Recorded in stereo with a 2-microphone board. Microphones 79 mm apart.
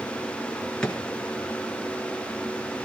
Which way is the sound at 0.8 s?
10° left (ahead or behind).